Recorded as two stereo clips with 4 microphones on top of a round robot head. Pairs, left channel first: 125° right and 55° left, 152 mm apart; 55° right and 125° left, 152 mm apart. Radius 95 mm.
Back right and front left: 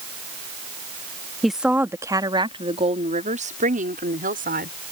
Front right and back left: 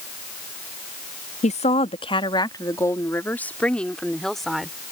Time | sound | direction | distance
1.4 | a woman speaking | 35° right | ?